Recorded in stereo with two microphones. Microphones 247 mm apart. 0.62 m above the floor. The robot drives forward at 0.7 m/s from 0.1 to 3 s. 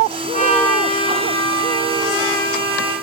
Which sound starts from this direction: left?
A trumpet, at 0.3 s.